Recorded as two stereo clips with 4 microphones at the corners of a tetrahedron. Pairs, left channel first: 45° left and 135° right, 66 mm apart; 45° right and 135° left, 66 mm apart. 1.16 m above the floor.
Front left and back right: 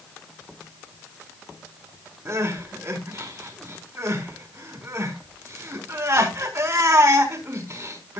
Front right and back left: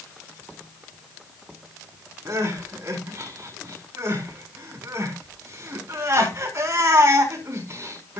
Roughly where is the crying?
Behind.